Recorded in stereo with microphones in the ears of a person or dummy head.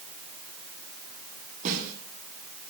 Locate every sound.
1.6 s a snare drum: 50° right (ahead or behind), 9 m